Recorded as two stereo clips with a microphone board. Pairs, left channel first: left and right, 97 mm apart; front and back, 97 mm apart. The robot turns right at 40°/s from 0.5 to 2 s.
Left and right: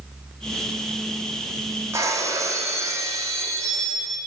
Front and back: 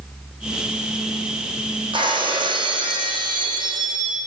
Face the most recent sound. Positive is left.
turn(degrees=-145)